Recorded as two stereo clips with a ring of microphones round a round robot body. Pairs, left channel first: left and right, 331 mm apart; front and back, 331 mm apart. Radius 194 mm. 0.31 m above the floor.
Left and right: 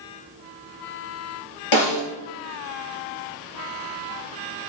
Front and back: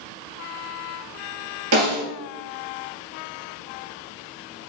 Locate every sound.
1.7 s a snare drum: 125° left, 4.5 m